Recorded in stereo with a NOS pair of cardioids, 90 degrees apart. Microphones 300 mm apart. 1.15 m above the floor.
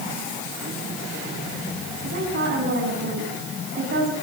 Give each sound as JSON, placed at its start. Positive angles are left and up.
{"t": 2.0, "sound": "a woman speaking", "azimuth_deg": -40, "distance_m": 9.0}